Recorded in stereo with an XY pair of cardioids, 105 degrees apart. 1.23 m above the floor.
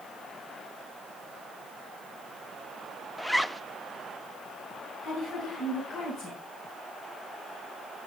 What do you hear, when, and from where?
3.2 s a zipper: 5° left, 0.6 m
5.0 s a woman speaking: 65° left, 9 m